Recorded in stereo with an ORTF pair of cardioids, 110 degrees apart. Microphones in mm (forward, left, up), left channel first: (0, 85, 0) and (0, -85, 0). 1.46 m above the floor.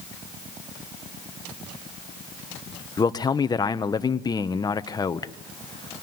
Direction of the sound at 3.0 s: 25° left.